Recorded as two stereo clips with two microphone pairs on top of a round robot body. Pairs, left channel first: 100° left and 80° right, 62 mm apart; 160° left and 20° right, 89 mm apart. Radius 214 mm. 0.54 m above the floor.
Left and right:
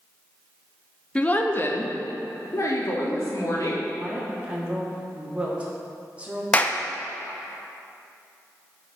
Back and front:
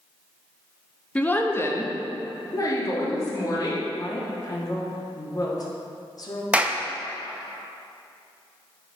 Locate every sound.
1.1 s a woman speaking: 85° left, 1.0 m; by 3.8 s 115° left, 2.5 m
4.0 s a woman speaking: 155° right, 1.7 m
6.5 s a clap: 45° left, 0.7 m